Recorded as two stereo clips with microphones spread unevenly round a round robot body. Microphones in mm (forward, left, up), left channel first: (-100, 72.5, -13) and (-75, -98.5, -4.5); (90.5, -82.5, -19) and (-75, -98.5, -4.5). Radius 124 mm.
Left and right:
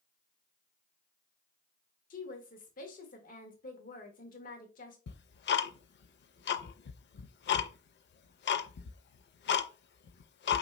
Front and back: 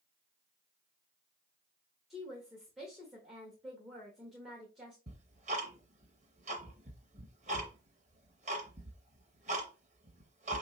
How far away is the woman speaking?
About 1.0 m.